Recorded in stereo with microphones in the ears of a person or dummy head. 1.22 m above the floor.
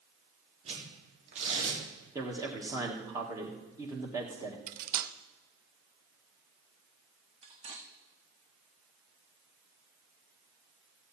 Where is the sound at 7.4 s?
35° right (ahead or behind), 1.4 m.